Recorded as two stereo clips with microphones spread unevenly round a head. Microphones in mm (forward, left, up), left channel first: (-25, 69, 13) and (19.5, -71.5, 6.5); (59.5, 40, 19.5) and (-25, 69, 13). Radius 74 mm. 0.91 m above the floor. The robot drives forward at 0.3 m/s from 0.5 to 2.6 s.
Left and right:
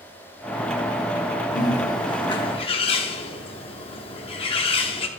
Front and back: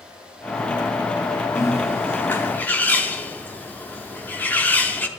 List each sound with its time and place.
1.6 s a bird: 40° left, 1.2 m; by 5.1 s 55° left, 0.9 m